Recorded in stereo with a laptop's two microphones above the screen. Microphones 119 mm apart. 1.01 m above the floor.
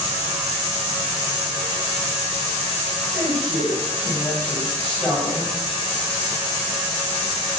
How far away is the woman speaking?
About 6 m.